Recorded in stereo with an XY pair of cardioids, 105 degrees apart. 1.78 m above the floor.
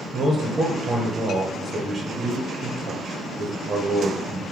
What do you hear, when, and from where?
0.1 s a man speaking: 25° right, 1.2 m